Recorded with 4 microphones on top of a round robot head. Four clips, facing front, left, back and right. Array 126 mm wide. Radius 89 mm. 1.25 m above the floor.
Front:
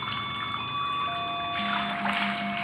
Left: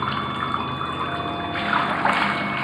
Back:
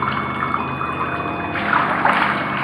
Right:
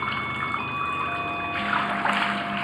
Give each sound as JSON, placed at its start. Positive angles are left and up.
{"t": 0.0, "sound": "running water", "azimuth_deg": 165}